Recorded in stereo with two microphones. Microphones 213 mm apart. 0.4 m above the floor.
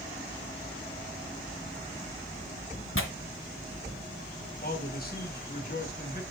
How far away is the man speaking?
About 3 m.